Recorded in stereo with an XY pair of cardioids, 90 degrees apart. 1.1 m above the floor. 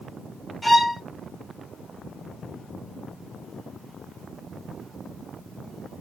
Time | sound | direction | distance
0.6 | a violin | straight ahead | 1.4 m